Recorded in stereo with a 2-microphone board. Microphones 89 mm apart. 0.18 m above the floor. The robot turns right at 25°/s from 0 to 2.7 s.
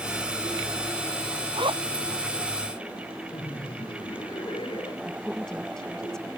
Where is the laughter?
70° left (ahead or behind).